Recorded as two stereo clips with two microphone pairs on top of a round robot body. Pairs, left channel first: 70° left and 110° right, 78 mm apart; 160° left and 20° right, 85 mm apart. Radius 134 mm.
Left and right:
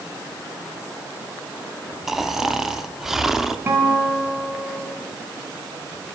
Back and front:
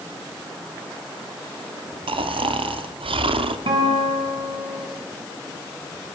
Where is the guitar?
45° right, 5.5 m.